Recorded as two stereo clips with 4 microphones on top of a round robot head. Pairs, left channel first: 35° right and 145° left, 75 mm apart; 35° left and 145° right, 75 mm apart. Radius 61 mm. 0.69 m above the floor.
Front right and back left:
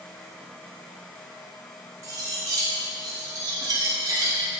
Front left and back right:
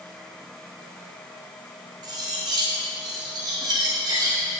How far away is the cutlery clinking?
About 1.3 m.